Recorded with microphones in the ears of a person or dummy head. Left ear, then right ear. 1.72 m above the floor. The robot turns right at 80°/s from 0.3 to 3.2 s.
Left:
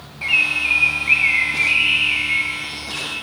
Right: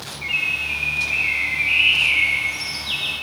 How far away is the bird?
About 0.6 m.